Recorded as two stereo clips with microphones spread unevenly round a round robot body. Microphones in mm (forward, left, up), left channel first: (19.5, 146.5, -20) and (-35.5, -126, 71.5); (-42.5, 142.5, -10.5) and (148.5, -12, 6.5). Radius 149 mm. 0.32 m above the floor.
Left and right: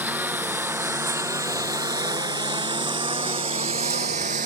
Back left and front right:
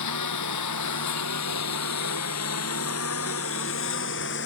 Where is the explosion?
I don't hear an explosion.